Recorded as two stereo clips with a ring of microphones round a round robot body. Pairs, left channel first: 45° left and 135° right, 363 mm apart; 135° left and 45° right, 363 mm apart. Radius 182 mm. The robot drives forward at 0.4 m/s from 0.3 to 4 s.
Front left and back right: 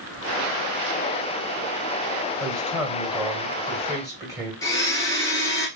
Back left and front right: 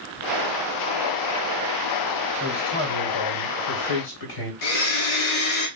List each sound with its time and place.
2.4 s a man speaking: 130° left, 2 m; by 4.5 s 145° left, 2.5 m
4.6 s a blender: 125° left, 1.3 m